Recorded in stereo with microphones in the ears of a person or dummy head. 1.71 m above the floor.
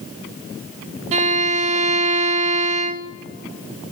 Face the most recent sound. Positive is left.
turn(degrees=-40)  # may be behind; listen again after turning